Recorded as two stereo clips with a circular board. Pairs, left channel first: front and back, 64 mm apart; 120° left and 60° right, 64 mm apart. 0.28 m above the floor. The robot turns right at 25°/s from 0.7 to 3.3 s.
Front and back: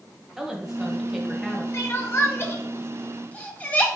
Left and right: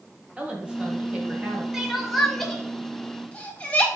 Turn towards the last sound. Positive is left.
turn(degrees=60)